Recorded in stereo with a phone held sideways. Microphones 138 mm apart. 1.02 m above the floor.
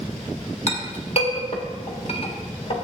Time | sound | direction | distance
0.7 | a clink | 50° left (ahead or behind) | 1.7 m